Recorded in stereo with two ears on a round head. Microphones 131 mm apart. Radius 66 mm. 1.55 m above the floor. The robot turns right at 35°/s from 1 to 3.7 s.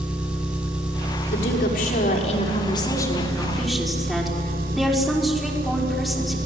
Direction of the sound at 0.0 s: 175° right.